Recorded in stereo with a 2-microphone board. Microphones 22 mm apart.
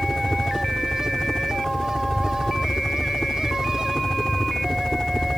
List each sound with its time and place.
0.0 s a helicopter: 35° left (ahead or behind)